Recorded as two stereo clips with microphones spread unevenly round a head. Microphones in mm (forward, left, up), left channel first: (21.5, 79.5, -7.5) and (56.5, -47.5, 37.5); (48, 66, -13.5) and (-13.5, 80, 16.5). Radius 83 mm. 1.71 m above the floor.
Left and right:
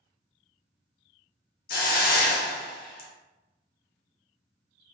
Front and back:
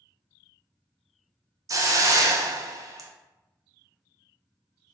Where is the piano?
I don't hear a piano.